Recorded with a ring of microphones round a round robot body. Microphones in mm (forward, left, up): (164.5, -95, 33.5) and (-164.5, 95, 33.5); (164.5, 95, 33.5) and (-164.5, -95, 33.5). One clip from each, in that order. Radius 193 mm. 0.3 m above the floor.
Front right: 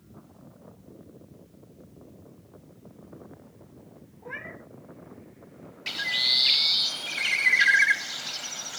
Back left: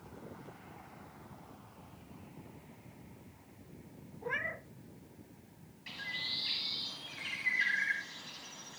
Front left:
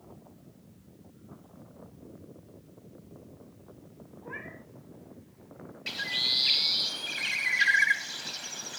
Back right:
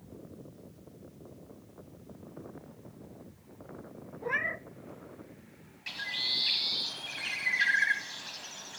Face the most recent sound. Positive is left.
turn(degrees=-40)